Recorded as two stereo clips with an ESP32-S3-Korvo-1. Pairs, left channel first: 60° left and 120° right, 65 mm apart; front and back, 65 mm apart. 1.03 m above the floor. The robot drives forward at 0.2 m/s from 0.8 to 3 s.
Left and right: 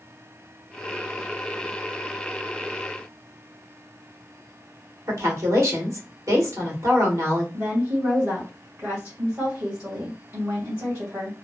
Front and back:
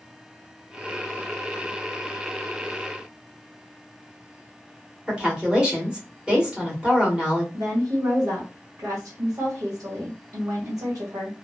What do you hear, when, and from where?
5.1 s a woman speaking: 110° right, 1.3 m
7.5 s a woman speaking: straight behind, 1.1 m